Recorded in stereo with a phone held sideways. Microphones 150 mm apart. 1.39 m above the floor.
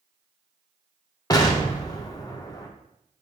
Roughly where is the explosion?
Left.